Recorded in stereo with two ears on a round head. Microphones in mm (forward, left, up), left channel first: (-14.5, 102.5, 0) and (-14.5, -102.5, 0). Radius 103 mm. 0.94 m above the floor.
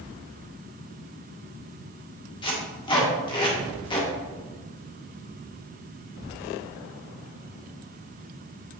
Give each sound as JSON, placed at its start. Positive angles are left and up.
{"t": 2.4, "sound": "tape being pulled", "side_deg": 25, "distance_m": 1.7}